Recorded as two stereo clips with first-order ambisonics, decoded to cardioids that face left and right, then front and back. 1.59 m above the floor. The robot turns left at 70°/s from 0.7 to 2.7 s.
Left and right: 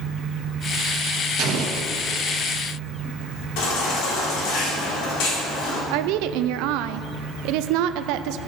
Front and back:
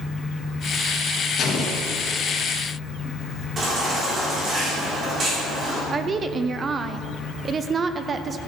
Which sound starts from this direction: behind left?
A baby crying, at 3.6 s.